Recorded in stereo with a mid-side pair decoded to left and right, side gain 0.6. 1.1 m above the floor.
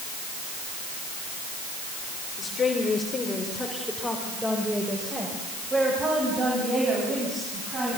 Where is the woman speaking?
35° left, 4 m; by 8.0 s 35° right, 9.5 m.